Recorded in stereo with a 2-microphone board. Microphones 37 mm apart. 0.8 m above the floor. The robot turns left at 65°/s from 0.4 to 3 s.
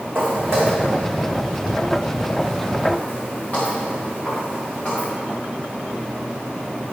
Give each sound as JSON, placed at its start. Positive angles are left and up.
{"t": 0.1, "sound": "footsteps", "side_deg": -80, "distance_m": 3.5}